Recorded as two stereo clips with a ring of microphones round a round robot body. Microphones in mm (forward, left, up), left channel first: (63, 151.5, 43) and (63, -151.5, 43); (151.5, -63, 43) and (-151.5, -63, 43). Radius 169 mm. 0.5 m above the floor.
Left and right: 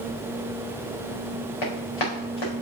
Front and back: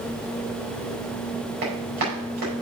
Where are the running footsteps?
115° left, 5 m.